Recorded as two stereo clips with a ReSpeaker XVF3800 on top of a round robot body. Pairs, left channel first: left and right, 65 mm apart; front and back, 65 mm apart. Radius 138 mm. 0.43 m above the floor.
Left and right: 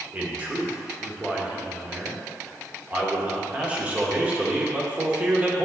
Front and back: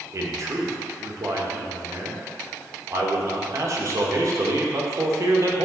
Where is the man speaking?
155° right, 1.5 m.